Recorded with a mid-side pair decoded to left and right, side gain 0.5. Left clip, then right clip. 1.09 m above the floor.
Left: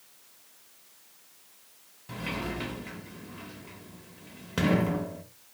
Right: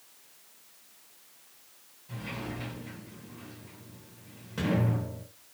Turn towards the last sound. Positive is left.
turn(degrees=60)